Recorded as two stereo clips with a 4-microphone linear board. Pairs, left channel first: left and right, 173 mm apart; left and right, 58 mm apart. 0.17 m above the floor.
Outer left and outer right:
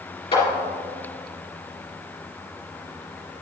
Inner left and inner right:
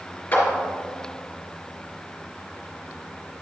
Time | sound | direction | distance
0.3 | a clap | 30° left (ahead or behind) | 3 m